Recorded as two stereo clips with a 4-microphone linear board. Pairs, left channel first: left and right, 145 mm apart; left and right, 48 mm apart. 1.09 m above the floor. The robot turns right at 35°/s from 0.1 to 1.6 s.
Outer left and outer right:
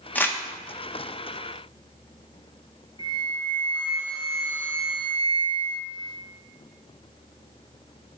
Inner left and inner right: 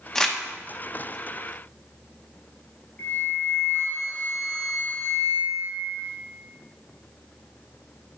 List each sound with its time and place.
0.1 s crumpling: 10° left (ahead or behind), 0.8 m; by 0.4 s 20° left (ahead or behind), 0.8 m
3.0 s a flute: 30° left (ahead or behind), 1.1 m